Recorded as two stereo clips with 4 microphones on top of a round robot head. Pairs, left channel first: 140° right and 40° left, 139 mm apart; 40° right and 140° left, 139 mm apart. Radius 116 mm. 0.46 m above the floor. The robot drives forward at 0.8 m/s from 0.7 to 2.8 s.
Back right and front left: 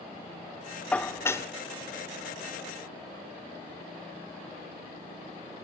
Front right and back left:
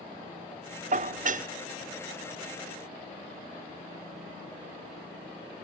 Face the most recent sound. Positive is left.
turn(degrees=165)